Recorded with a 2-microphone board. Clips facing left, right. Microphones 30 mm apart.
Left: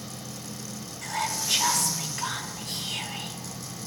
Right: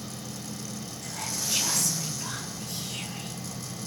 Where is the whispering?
80° left, 5 m.